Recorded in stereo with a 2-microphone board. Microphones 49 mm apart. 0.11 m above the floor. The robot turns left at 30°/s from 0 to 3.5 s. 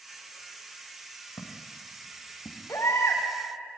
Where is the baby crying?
70° left (ahead or behind), 5.5 m; by 3.2 s 50° left (ahead or behind), 5.5 m.